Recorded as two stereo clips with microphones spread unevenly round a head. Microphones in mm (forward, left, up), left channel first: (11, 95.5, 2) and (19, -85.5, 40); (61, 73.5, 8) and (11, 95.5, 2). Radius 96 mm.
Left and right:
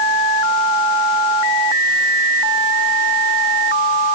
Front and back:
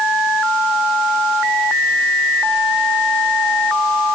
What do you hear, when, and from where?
Only background noise.